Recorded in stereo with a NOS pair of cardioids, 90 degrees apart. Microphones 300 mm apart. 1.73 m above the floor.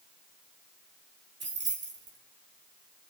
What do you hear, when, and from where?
1.4 s keys jangling: 40° right, 3 m